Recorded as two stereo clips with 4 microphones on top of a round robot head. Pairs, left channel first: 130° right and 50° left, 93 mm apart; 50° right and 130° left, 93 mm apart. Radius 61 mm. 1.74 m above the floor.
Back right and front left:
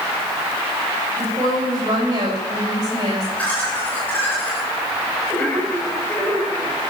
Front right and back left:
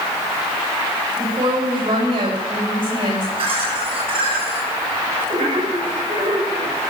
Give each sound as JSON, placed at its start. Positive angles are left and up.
{"t": 1.2, "sound": "a woman speaking", "azimuth_deg": 95, "distance_m": 7.0}
{"t": 3.4, "sound": "laughter", "azimuth_deg": 150, "distance_m": 7.5}